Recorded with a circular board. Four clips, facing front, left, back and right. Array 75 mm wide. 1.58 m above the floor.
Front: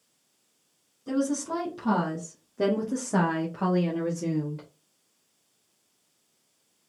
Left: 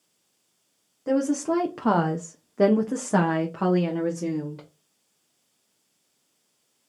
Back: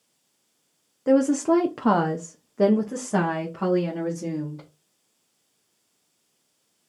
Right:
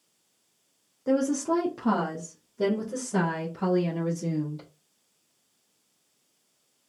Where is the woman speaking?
175° left, 0.9 m; by 4.7 s 70° left, 1.6 m.